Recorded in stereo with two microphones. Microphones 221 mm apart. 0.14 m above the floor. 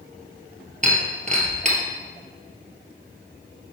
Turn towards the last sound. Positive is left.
turn(degrees=-35)  # may be behind; listen again after turning